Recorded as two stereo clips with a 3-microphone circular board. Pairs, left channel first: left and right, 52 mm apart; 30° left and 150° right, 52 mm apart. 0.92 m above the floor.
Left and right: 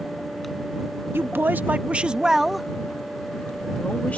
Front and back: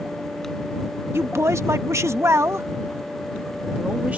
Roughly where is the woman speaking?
Behind right.